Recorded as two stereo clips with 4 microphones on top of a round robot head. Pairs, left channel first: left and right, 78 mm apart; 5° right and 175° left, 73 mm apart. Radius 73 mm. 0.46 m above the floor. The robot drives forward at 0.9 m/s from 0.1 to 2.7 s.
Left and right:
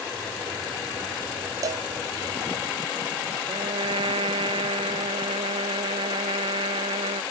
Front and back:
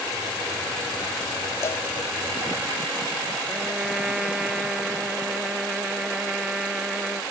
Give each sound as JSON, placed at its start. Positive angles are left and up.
{"t": 1.6, "sound": "a cowbell", "azimuth_deg": -55}
{"t": 3.5, "sound": "a trumpet", "azimuth_deg": -105}